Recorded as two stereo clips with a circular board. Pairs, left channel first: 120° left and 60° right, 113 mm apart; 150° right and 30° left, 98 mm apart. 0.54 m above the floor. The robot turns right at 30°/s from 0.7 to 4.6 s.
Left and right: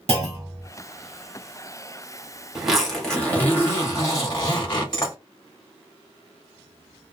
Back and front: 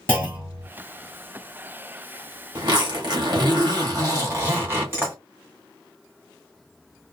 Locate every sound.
0.1 s a clunk: 40° right, 2.5 m
2.5 s a zipper: 25° left, 1.8 m; by 5.2 s 85° left, 1.8 m